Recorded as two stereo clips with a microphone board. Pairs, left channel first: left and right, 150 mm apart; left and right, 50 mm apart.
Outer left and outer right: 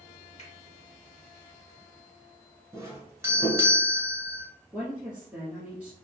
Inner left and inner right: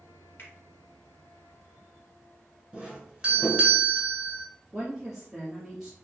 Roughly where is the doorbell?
Centre.